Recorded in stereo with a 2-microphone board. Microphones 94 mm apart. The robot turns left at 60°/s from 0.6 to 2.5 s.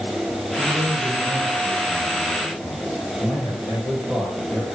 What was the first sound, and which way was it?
A man speaking, 75° right.